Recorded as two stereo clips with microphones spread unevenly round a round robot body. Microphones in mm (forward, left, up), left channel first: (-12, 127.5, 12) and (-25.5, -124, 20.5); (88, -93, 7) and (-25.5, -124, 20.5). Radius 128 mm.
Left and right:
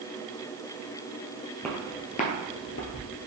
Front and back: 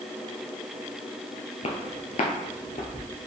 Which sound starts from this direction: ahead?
Footsteps, at 1.6 s.